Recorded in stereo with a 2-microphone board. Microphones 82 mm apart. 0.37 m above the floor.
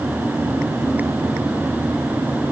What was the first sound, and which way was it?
Only background noise.